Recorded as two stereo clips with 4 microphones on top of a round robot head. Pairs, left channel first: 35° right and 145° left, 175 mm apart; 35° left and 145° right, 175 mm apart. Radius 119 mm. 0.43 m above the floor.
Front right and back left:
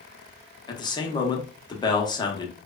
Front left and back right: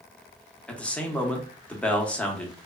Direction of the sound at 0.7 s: 40° right.